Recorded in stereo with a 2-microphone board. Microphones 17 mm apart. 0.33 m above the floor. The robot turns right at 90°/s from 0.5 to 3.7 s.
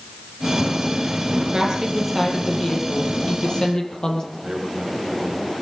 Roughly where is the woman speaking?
Ahead right.